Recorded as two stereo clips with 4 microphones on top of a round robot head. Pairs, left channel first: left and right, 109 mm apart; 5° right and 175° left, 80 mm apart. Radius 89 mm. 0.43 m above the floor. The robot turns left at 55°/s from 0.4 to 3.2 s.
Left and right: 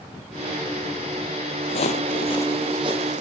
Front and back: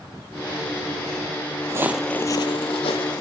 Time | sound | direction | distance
1.7 | footsteps | 130° left | 1.0 m